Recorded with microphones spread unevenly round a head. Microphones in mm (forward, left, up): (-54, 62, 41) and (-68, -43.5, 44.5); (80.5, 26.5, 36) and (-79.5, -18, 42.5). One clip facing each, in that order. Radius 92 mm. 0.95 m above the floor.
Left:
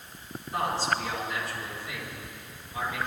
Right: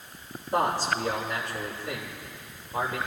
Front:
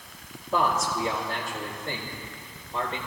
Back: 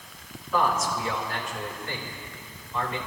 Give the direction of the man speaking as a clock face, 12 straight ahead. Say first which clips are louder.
Right 3 dB, even; 1 o'clock.